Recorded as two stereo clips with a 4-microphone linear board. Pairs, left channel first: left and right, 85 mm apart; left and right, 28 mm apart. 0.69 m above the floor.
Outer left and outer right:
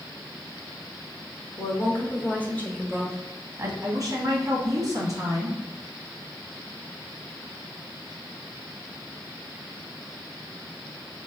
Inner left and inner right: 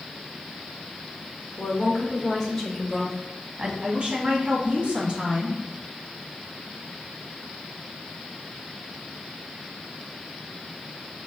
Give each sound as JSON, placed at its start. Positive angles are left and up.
{"t": 1.6, "sound": "a woman speaking", "side_deg": 35, "distance_m": 1.7}
{"t": 3.8, "sound": "a woman speaking", "side_deg": -40, "distance_m": 1.5}